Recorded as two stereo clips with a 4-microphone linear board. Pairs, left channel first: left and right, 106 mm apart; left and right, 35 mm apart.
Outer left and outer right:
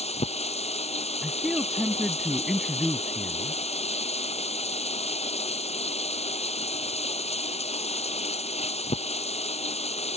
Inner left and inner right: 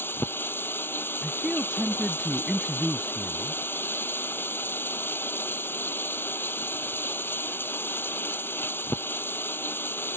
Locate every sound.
0.0 s running water: 75° left (ahead or behind)
1.2 s a man speaking: 5° right (ahead or behind)